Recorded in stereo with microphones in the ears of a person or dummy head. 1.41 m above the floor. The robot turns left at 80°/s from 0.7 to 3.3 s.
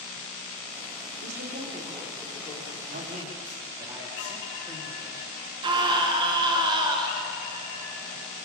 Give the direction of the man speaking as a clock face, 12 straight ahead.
4 o'clock.